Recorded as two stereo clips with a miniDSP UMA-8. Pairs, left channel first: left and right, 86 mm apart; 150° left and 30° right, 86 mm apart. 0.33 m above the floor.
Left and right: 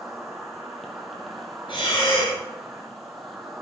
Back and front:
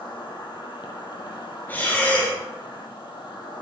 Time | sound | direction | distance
0.0 | an insect | straight behind | 2 m
1.7 | breathing | 85° left | 6 m